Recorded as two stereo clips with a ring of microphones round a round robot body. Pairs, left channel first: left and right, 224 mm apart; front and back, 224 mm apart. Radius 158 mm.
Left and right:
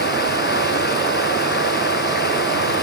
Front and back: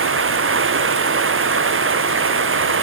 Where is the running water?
150° left.